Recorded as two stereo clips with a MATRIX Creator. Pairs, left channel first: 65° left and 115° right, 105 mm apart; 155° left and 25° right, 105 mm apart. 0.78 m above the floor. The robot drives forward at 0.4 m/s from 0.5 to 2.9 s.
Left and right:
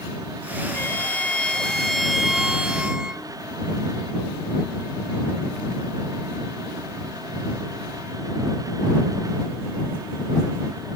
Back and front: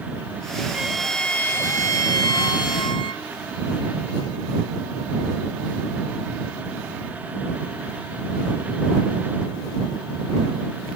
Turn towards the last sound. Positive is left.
turn(degrees=165)